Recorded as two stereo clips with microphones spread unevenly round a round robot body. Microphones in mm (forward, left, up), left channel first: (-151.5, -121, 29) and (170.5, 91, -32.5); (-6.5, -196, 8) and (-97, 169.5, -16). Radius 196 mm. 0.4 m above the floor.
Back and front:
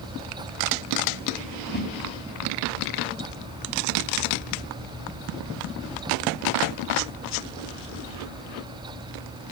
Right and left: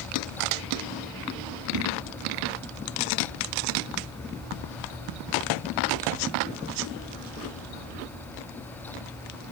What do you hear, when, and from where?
1.7 s a whoosh: 145° left, 2.5 m